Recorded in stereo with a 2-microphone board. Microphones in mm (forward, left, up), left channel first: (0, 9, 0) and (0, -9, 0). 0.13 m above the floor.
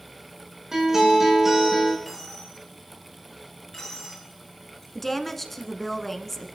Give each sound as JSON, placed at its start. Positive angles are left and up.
{"t": 0.7, "sound": "a guitar", "side_deg": -25, "distance_m": 5.5}
{"t": 2.0, "sound": "a dropped coin", "side_deg": 15, "distance_m": 8.5}
{"t": 5.0, "sound": "a woman speaking", "side_deg": 10, "distance_m": 1.3}